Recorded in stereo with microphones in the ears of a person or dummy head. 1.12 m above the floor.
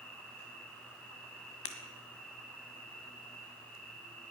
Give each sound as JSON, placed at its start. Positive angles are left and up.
{"t": 0.0, "sound": "an insect", "side_deg": 5, "distance_m": 3.0}
{"t": 1.6, "sound": "breaking glass", "side_deg": 35, "distance_m": 1.6}